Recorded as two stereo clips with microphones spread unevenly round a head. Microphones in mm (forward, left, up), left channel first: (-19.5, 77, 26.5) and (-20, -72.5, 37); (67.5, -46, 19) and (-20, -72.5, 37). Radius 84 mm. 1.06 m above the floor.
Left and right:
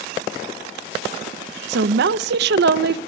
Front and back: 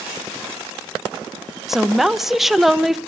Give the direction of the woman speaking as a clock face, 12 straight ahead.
2 o'clock.